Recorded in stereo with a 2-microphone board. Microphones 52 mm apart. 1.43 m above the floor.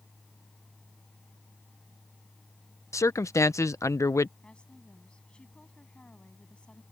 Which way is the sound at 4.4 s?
20° left (ahead or behind).